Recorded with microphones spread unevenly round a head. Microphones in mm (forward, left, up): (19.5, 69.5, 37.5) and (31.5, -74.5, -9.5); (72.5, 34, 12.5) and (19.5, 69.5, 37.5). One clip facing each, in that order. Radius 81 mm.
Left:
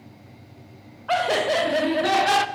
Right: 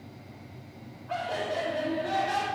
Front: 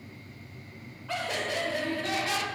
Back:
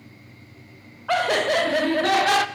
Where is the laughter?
115° left, 0.6 m.